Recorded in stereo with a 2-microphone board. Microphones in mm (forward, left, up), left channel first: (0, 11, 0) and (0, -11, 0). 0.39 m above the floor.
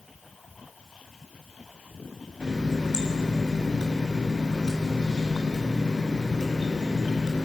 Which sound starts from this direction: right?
A running tap, at 2.4 s.